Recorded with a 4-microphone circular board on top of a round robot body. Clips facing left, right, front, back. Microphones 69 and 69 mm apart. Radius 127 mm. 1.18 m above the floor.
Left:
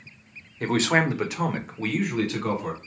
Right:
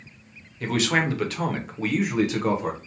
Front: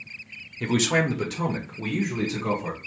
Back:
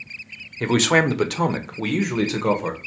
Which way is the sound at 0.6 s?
135° left.